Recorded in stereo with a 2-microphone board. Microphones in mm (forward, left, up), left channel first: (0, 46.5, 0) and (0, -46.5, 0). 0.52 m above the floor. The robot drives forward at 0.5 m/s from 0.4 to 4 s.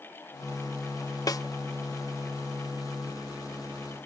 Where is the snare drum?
40° left (ahead or behind), 0.6 m.